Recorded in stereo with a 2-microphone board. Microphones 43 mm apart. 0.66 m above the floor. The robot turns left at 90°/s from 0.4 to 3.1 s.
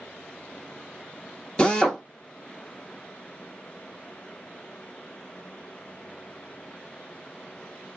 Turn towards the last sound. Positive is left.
turn(degrees=-85)